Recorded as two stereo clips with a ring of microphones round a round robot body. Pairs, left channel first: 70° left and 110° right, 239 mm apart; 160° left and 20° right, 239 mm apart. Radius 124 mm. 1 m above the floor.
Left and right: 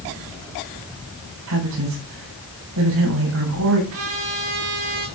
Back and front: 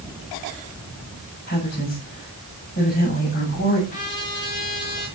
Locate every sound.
1.5 s a woman speaking: 150° right, 7.5 m
3.9 s a trumpet: 145° right, 7 m